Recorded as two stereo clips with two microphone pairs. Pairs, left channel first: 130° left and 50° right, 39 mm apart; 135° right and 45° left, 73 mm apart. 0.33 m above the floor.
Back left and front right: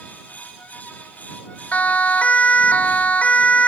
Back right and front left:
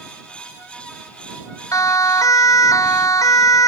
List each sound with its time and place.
1.7 s a siren: 175° right